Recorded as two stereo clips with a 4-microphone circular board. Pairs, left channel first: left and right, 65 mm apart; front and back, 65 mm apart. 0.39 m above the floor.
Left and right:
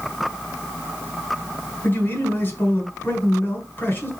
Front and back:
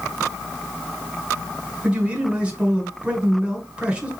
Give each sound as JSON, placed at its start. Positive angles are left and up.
{"t": 1.8, "sound": "a man speaking", "azimuth_deg": 120, "distance_m": 1.6}